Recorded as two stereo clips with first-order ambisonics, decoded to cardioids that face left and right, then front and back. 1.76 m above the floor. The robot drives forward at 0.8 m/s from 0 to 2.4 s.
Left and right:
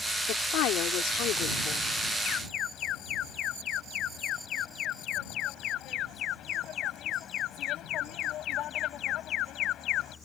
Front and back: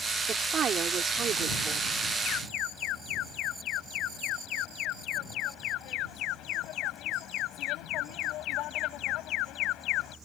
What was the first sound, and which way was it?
A woman speaking, 115° left.